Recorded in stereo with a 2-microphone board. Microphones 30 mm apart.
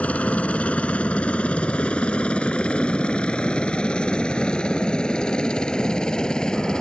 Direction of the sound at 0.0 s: 50° left (ahead or behind).